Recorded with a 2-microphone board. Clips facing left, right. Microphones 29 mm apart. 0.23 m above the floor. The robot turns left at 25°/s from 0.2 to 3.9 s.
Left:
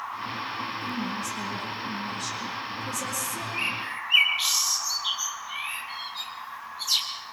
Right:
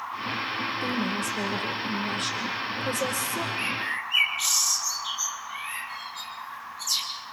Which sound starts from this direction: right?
A woman speaking, at 0.8 s.